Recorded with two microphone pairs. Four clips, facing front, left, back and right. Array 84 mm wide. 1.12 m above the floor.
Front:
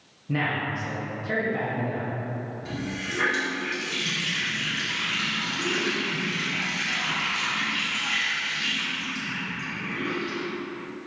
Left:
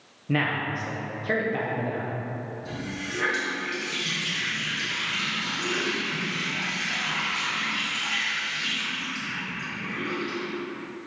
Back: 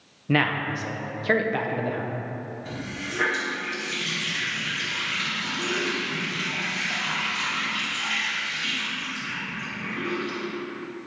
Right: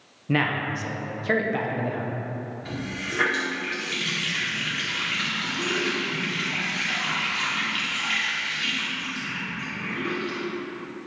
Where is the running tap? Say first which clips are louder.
Right 1 dB, front 2 dB; 90° right, 2 m.